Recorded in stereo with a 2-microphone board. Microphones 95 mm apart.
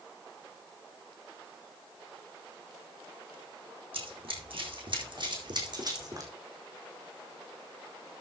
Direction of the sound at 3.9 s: 75° right (ahead or behind).